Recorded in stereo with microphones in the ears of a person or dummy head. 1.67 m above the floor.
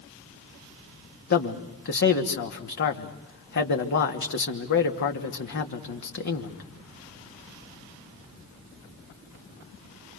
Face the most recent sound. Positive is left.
turn(degrees=60)  # may be behind; listen again after turning